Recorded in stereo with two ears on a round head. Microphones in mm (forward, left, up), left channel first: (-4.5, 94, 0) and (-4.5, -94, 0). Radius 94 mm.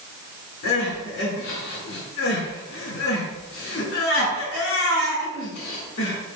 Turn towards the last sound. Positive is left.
turn(degrees=65)  # may be behind; listen again after turning